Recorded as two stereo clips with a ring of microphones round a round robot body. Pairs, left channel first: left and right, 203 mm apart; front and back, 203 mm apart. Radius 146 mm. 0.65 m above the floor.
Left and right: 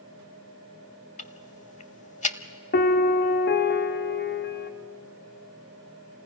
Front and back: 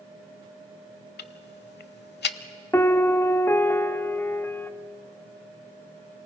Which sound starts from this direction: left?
A piano, at 2.7 s.